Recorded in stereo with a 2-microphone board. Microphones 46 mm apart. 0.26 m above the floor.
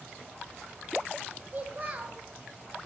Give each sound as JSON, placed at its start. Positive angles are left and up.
{"t": 1.5, "sound": "a child speaking", "side_deg": -40, "distance_m": 0.8}